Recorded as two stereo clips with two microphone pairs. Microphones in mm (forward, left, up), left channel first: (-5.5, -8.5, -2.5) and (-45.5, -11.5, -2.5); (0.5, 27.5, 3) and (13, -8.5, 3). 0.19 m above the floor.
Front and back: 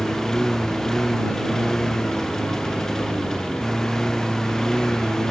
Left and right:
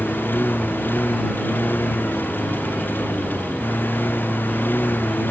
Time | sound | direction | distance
0.0 | a lawn mower | 85° left | ?